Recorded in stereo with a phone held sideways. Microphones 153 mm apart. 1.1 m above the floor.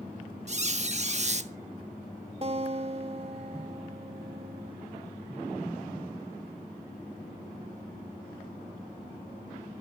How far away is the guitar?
About 1.2 m.